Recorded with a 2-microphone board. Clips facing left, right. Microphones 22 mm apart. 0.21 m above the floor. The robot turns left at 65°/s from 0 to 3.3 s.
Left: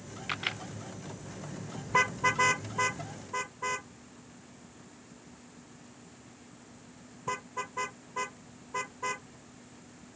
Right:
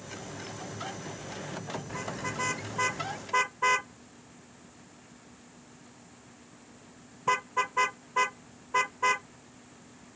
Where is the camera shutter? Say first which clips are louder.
Left 12 dB; 70° left (ahead or behind); by 0.6 s 50° left (ahead or behind).